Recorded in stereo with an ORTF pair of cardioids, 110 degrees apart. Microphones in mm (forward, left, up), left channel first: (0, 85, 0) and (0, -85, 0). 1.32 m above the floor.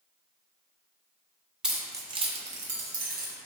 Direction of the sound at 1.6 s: 5° right.